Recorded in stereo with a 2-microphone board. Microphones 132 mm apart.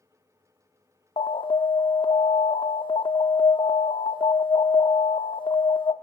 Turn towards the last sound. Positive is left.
turn(degrees=40)  # may be behind; listen again after turning